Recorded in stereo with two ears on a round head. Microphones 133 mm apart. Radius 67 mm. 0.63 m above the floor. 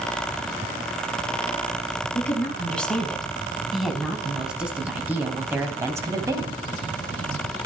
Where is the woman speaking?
10° left (ahead or behind), 5 m; by 6.6 s 25° right (ahead or behind), 3.5 m.